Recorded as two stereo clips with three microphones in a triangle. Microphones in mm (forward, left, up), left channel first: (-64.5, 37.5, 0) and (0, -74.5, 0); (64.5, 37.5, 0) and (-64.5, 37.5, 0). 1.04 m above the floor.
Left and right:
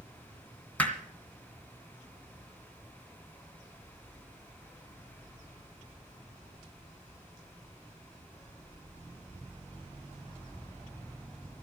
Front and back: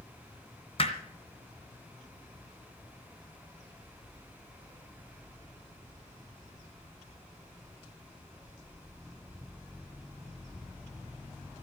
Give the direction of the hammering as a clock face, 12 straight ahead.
11 o'clock.